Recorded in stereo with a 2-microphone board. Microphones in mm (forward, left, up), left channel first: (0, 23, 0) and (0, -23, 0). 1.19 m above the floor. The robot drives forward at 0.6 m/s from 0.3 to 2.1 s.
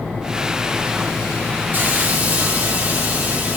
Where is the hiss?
45° right (ahead or behind), 0.8 m; by 3.6 s 35° right (ahead or behind), 0.9 m.